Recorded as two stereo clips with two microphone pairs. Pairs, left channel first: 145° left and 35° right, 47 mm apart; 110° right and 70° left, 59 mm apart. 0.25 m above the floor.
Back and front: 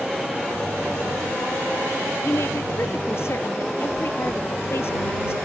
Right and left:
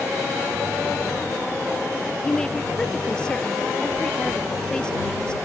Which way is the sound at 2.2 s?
175° left.